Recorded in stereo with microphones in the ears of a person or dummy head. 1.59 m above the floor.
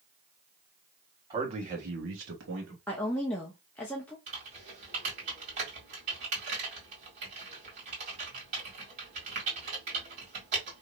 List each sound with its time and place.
1.3 s a man speaking: 20° right (ahead or behind), 1.4 m; by 2.8 s 60° right (ahead or behind), 1.6 m
2.9 s a woman speaking: 10° left (ahead or behind), 0.7 m
4.3 s typing on a keyboard: 45° right (ahead or behind), 1.9 m